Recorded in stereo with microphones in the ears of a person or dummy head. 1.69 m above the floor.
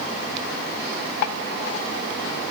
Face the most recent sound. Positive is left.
No sound to turn to.